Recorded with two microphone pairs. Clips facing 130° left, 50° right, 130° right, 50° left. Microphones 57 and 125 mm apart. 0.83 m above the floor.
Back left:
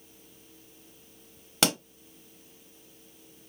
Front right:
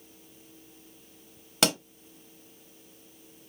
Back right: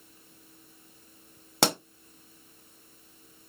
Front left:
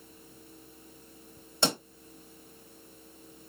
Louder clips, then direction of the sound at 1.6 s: Front right 1 dB, back right 3 dB; 145° right.